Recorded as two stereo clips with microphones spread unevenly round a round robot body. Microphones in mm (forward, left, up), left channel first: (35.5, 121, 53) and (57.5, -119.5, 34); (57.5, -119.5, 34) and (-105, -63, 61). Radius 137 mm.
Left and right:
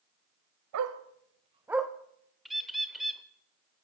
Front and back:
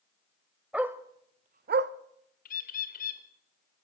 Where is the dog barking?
115° right, 1.0 m; by 1.9 s straight behind, 0.7 m.